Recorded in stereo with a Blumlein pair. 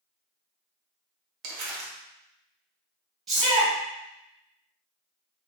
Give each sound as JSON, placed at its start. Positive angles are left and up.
{"t": 1.4, "sound": "crumpling", "azimuth_deg": -40, "distance_m": 0.7}
{"t": 3.3, "sound": "a shout", "azimuth_deg": -15, "distance_m": 1.4}